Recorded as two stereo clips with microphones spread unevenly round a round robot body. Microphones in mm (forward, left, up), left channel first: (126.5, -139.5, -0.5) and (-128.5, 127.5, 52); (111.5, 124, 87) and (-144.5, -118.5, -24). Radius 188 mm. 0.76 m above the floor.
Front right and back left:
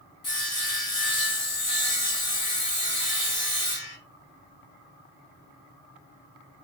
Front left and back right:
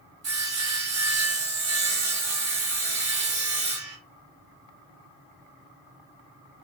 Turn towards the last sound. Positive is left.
turn(degrees=-115)